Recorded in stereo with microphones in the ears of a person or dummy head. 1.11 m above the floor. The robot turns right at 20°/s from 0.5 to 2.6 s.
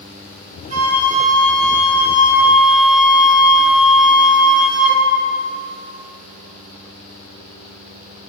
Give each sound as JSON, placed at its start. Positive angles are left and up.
{"t": 0.7, "sound": "a flute", "azimuth_deg": -45, "distance_m": 2.5}